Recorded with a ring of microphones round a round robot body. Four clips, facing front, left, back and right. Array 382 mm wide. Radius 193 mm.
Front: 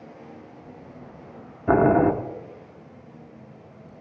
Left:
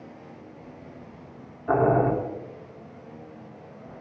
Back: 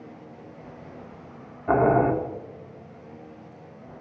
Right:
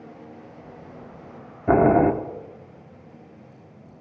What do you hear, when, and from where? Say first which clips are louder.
1.7 s boiling: right 4 dB, front 2 dB; 55° right, 1.7 m